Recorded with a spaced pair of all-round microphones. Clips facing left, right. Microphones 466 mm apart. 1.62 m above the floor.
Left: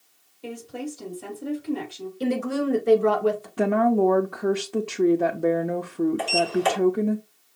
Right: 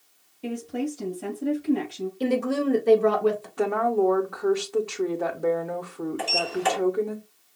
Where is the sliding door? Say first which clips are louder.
Left 4 dB; 10° right (ahead or behind), 1.6 m.